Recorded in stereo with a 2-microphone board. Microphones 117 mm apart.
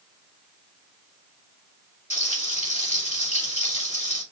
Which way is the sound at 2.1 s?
85° left.